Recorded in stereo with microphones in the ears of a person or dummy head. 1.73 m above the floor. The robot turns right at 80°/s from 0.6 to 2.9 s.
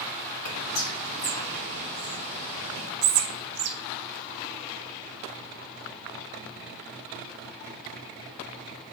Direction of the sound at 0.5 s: 85° left.